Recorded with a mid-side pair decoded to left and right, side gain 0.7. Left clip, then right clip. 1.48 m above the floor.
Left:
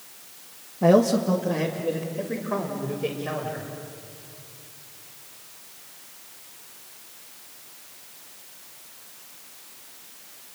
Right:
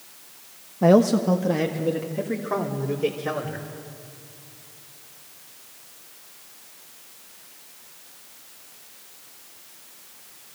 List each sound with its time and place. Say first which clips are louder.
0.8 s a man speaking: right 1 dB; 20° right, 1.2 m; by 3.7 s 35° right, 4.5 m